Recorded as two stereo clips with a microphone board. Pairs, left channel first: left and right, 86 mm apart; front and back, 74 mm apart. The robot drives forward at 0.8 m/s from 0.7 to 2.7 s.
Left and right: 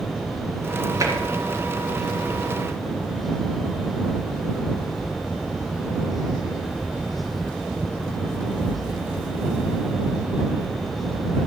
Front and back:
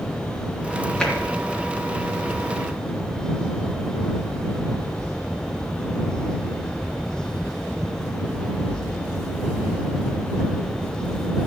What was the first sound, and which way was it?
Tapping, 70° right.